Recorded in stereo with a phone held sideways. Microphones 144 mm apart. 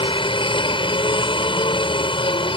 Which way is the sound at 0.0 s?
40° left (ahead or behind).